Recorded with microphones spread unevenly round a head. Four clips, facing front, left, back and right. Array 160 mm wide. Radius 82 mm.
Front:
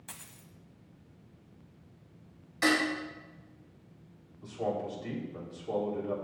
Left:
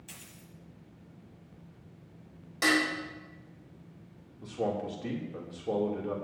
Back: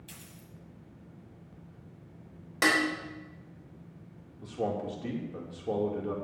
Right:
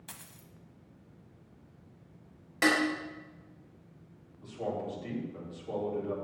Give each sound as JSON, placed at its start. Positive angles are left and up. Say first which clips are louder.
{"t": 0.1, "sound": "a dropped coin", "louder": "even, back 1 dB", "azimuth_deg": -35, "distance_m": 1.2}
{"t": 2.6, "sound": "dishes clattering", "louder": "even, back 1 dB", "azimuth_deg": -170, "distance_m": 3.0}
{"t": 4.4, "sound": "a man speaking", "louder": "left 3 dB, back 1 dB", "azimuth_deg": 140, "distance_m": 3.0}